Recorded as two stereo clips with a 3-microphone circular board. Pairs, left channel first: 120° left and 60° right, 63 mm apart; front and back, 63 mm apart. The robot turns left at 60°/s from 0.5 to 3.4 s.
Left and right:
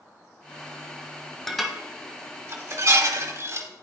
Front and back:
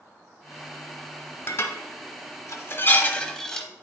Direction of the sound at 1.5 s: 40° left.